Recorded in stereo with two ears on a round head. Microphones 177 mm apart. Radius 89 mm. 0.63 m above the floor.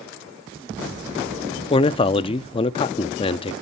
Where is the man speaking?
25° left (ahead or behind), 0.6 m.